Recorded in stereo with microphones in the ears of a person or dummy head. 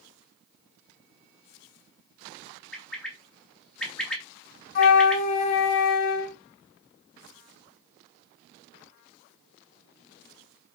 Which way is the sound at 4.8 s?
35° left (ahead or behind).